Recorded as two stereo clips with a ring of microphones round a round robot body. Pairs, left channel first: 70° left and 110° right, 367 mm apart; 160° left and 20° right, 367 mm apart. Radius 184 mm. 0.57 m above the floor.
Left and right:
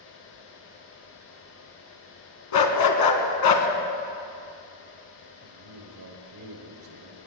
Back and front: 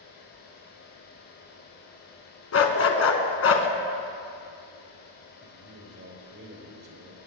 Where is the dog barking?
105° left, 1.8 m.